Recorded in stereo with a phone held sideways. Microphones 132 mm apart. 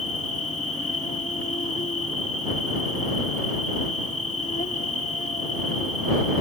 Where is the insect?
65° left (ahead or behind).